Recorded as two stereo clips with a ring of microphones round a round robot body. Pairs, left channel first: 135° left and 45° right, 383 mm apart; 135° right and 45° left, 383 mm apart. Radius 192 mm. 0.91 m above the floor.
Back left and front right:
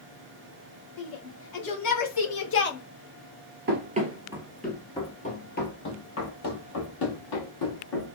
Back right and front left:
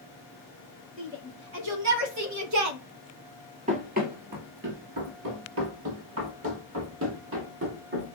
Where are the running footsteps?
10° right, 1.0 m; by 8.2 s 100° left, 2 m.